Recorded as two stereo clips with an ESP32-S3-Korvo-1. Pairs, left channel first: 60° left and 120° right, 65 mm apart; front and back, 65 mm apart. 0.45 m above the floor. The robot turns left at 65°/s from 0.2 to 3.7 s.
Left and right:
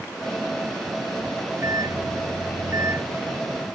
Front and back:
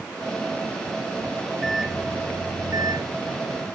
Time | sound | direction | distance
1.6 | a microwave | 85° right | ?